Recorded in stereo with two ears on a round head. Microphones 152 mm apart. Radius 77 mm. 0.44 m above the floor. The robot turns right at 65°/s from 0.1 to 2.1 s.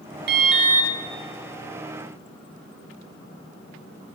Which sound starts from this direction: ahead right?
An alarm, at 0.3 s.